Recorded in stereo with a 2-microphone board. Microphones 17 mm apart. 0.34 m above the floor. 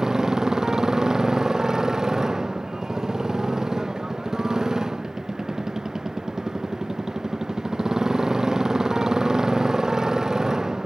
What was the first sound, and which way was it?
A motorcycle, 35° right (ahead or behind).